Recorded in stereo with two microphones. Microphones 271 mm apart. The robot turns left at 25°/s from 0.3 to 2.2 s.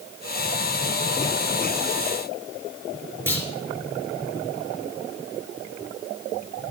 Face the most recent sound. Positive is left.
turn(degrees=5)  # may be behind; listen again after turning